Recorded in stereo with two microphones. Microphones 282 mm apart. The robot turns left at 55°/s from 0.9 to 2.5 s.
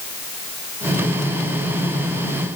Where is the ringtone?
No ringtone in this recording.